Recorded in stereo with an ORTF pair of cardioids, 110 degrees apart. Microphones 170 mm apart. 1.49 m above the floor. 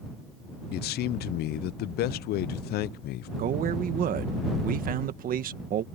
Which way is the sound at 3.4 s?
55° right.